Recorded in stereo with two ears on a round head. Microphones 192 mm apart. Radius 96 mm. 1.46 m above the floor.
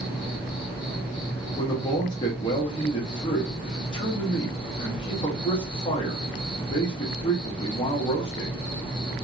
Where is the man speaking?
20° left (ahead or behind), 1.1 m.